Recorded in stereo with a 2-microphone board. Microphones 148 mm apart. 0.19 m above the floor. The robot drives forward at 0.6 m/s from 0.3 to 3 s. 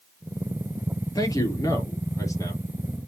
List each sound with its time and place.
1.1 s a man speaking: 25° left (ahead or behind), 4 m; by 2.6 s 20° left (ahead or behind), 5 m